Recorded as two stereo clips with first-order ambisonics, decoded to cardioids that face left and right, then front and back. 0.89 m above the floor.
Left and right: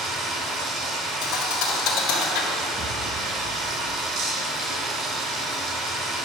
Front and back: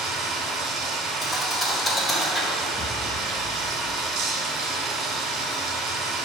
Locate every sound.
0.0 s running water: 140° right, 2 m
1.2 s a thud: 80° left, 1.7 m
2.7 s an explosion: 80° right, 0.8 m